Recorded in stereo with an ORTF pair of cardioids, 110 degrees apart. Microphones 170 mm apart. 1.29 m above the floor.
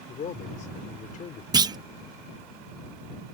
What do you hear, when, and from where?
0.1 s a man speaking: 50° left
1.5 s a clunk: 25° right